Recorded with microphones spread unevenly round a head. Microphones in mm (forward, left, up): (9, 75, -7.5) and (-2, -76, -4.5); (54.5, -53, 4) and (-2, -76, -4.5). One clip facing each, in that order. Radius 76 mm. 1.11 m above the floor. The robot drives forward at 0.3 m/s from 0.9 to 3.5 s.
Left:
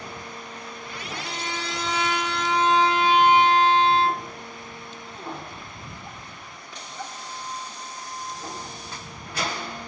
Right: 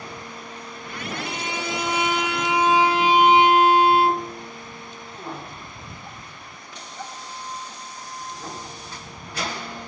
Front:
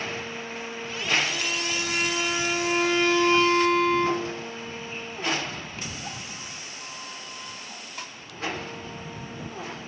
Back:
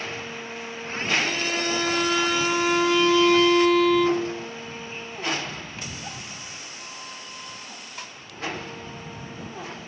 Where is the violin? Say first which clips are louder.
Right 2 dB, back 3 dB; 170° right, 1.1 m; by 4.5 s 175° right, 1.7 m.